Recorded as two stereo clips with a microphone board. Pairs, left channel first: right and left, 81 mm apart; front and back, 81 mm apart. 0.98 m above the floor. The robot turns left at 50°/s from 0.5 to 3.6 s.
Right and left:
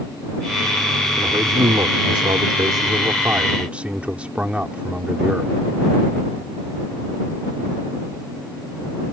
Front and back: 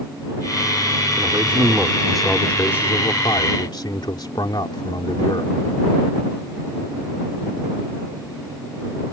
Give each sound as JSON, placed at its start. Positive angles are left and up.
{"t": 1.2, "sound": "a man speaking", "azimuth_deg": 135}